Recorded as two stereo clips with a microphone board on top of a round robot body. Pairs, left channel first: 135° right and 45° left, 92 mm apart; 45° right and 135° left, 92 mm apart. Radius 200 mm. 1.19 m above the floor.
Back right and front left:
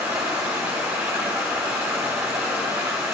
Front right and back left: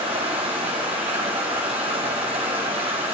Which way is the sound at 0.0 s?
115° left.